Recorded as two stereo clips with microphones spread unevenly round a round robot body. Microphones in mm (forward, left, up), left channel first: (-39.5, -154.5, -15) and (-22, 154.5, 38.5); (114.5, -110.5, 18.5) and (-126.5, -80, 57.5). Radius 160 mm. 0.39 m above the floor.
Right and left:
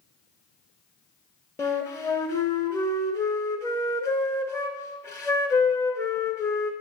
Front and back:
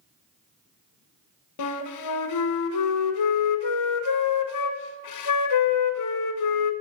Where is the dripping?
I don't hear dripping.